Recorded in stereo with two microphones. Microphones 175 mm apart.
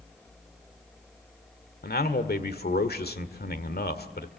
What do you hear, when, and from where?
1.8 s a man speaking: 75° left (ahead or behind), 1.8 m